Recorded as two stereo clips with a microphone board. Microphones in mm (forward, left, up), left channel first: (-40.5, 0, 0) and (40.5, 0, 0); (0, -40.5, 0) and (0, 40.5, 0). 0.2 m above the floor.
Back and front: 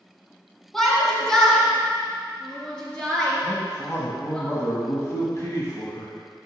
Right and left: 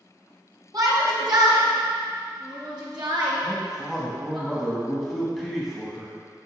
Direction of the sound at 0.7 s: 95° left.